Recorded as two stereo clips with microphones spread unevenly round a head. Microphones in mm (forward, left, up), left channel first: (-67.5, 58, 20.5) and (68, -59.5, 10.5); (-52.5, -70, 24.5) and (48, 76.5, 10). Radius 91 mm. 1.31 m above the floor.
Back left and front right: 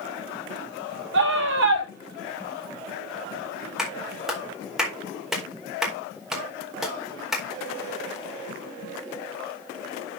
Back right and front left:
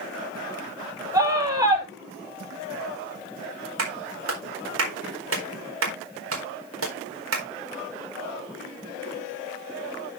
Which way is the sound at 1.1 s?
20° right.